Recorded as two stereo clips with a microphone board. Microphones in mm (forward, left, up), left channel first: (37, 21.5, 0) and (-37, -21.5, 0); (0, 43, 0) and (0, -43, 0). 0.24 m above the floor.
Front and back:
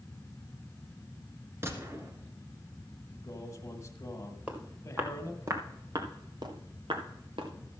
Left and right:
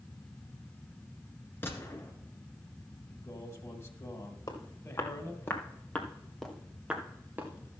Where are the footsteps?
140° left, 3 m; by 7.5 s 155° right, 2.5 m.